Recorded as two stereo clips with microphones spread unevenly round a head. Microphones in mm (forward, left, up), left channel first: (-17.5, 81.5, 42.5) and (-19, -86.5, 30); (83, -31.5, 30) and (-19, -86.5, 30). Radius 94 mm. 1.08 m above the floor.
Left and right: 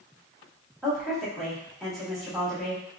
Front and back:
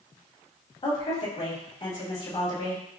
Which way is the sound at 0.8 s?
Straight ahead.